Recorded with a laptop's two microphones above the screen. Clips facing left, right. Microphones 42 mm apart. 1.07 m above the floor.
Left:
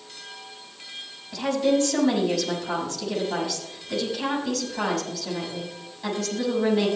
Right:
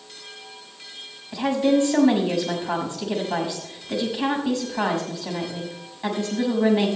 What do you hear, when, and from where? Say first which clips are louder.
1.3 s a woman speaking: right 2 dB; 20° right (ahead or behind), 6 m